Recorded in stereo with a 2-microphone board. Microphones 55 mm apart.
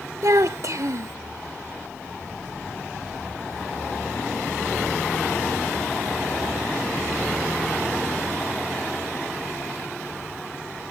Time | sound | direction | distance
0.2 | a child speaking | 70° right (ahead or behind) | ?